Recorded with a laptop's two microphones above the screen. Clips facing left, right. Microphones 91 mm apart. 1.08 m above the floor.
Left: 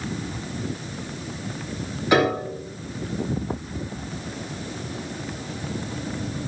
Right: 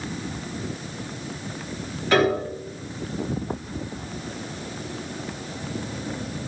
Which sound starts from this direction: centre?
A piano, at 2.1 s.